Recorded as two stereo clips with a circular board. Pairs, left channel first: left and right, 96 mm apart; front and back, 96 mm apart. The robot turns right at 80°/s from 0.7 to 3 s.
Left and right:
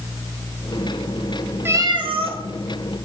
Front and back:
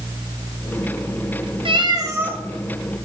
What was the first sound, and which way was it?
A cat meowing, 155° right.